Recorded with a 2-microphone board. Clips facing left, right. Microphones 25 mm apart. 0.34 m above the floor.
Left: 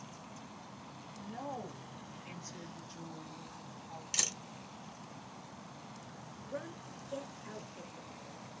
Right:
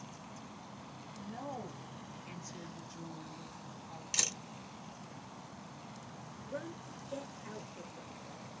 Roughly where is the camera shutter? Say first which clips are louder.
Right 1 dB; centre.